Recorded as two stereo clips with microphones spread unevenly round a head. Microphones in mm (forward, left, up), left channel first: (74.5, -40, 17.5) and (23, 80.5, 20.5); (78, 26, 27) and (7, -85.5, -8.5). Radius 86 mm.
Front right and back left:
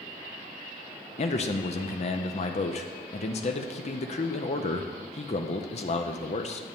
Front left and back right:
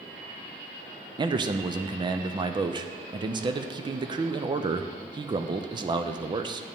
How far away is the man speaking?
About 0.5 m.